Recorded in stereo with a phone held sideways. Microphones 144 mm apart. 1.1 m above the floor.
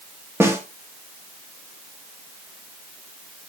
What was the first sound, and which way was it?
A snare drum, 15° right (ahead or behind).